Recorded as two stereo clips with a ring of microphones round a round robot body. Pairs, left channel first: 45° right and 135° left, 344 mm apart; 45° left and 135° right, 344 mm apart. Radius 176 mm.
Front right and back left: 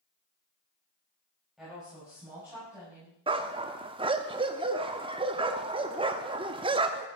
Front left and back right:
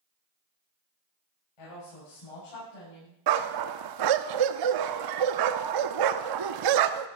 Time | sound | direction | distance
1.6 | a woman speaking | 45° left | 6 m
3.3 | a dog barking | 150° right | 0.7 m